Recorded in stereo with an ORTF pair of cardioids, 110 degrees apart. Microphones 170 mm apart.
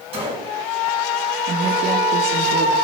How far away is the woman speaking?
About 1.4 m.